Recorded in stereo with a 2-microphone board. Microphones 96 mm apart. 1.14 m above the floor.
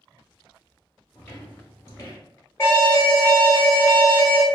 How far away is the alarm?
About 1.1 m.